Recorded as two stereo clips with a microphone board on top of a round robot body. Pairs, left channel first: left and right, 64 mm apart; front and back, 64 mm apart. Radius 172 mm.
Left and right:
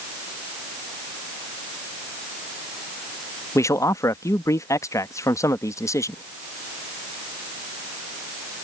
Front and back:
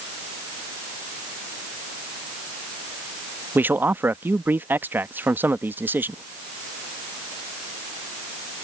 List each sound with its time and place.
3.5 s a man speaking: 125° left